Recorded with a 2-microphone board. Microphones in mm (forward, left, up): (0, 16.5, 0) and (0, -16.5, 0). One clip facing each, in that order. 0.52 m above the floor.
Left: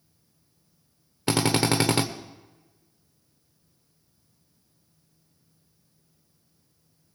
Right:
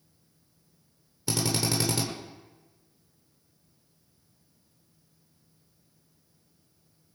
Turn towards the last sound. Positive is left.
turn(degrees=50)  # may be behind; listen again after turning